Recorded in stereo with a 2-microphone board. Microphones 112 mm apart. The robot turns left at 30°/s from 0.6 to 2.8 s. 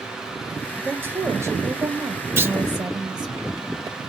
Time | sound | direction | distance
0.8 | a woman speaking | 25° right | 1.3 m
2.4 | a clunk | 20° right (ahead or behind) | 0.6 m